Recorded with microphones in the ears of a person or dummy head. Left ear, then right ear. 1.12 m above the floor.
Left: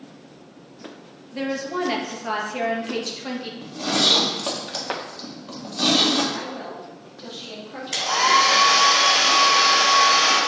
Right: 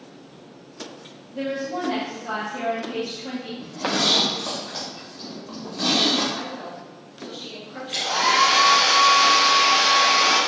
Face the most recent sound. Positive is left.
turn(degrees=50)  # may be behind; listen again after turning